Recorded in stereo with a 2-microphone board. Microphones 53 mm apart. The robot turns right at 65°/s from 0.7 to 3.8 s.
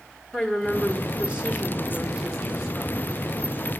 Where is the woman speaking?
10° right (ahead or behind), 0.8 m; by 3.2 s 5° left (ahead or behind), 0.8 m.